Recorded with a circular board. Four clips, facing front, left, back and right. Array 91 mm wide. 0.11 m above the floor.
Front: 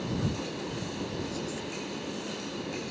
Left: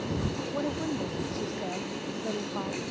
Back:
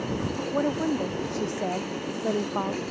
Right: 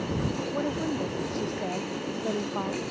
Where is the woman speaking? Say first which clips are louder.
Right 1 dB, back 11 dB; 175° right; by 2.8 s 170° right.